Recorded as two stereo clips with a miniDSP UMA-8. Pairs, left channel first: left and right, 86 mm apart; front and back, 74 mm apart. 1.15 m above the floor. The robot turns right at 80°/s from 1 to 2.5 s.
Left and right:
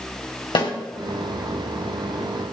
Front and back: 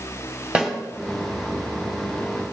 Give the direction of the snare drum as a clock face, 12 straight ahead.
8 o'clock.